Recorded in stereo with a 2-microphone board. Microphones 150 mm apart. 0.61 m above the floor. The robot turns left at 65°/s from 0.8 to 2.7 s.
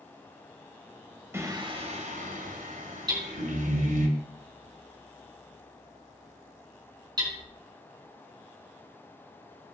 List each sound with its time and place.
1.3 s singing: 20° right, 2 m; by 4.1 s 105° right, 2 m
3.1 s hammering: 30° right (ahead or behind), 4.5 m